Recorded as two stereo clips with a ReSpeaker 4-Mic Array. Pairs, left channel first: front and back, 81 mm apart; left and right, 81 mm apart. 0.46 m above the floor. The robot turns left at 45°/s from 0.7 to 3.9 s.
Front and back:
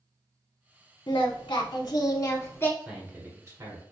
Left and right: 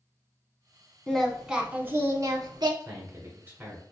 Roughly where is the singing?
Ahead.